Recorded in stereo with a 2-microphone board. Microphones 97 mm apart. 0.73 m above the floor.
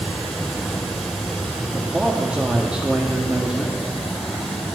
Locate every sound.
0.0 s running water: centre (ahead or behind), 4 m
1.7 s a man speaking: 10° right (ahead or behind), 1.5 m